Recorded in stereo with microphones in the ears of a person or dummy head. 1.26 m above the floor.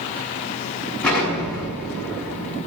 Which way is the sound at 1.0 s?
5° left (ahead or behind).